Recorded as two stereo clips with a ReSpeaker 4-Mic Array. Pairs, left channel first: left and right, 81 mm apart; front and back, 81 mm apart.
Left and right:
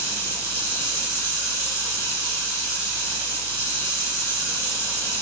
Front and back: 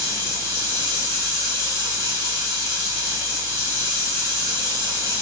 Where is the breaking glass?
I don't hear breaking glass.